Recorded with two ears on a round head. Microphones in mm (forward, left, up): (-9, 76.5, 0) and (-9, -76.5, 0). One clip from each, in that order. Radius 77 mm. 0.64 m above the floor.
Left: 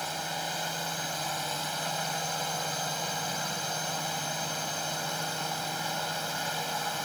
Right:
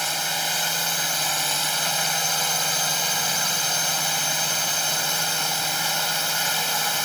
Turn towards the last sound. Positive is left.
turn(degrees=-50)  # may be behind; listen again after turning